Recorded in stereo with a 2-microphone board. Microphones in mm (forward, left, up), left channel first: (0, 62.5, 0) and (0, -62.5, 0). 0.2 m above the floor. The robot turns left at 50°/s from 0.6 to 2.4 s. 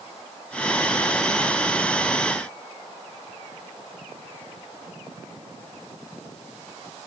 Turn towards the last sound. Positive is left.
No sound to turn to.